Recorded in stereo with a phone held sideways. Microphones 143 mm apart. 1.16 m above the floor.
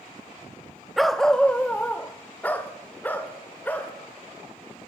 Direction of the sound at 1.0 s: Centre (ahead or behind).